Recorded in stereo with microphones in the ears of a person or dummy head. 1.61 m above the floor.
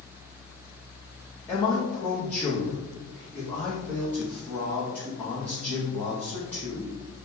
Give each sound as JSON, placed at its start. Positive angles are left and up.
{"t": 1.5, "sound": "a man speaking", "side_deg": 10, "distance_m": 0.7}